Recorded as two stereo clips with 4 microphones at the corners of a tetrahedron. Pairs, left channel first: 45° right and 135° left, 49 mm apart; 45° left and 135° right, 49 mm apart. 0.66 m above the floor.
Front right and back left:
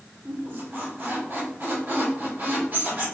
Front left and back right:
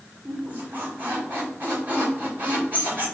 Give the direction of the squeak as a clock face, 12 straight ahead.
6 o'clock.